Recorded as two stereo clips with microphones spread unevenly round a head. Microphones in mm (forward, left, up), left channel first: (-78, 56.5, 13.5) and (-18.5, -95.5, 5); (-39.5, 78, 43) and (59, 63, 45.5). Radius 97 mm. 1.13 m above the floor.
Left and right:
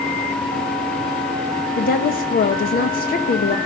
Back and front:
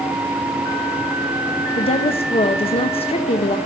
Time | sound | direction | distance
1.8 | a woman speaking | 145° left | 1.0 m